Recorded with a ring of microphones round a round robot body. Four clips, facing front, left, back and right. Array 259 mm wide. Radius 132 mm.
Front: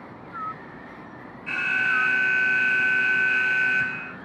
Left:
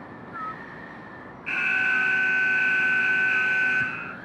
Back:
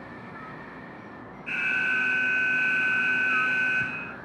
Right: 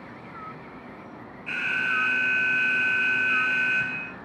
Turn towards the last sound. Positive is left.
turn(degrees=50)